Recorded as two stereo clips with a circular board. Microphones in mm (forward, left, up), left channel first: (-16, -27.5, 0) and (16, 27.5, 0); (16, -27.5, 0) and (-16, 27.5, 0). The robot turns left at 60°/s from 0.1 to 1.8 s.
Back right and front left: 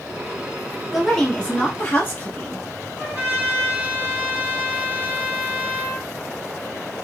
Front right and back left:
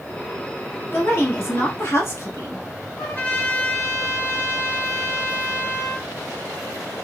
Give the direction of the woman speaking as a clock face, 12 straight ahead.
1 o'clock.